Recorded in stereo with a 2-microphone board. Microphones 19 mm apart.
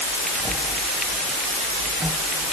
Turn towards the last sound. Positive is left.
No sound to turn to.